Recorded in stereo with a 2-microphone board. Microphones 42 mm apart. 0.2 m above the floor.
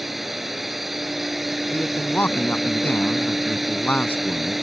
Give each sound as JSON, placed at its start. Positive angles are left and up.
{"t": 0.0, "sound": "a drone", "side_deg": -5}
{"t": 1.7, "sound": "a man speaking", "side_deg": 45}